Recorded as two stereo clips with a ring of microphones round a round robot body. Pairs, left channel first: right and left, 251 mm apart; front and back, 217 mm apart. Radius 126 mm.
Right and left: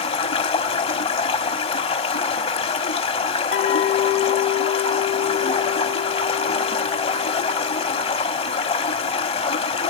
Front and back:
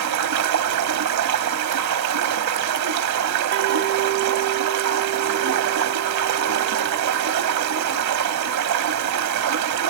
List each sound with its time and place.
0.0 s running water: 160° right, 1.1 m
3.5 s a clink: 130° right, 0.9 m